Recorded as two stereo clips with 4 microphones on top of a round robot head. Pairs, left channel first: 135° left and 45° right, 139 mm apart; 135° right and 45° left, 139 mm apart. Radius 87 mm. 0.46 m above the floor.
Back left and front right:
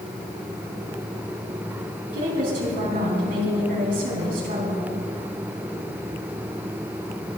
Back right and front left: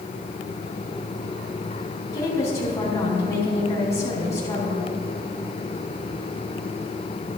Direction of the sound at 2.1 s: 65° right.